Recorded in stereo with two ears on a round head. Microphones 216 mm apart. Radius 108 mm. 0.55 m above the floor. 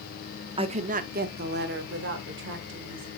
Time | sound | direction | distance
0.6 | a woman speaking | 20° right (ahead or behind) | 0.9 m